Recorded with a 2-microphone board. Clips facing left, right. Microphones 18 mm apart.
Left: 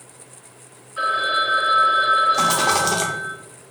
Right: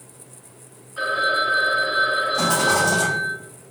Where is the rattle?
55° left (ahead or behind), 0.6 m.